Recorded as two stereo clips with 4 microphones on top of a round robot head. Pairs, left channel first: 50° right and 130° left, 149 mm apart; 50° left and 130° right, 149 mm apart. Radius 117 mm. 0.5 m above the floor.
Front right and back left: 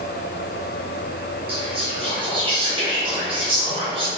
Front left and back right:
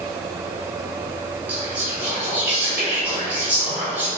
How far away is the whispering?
About 1.6 m.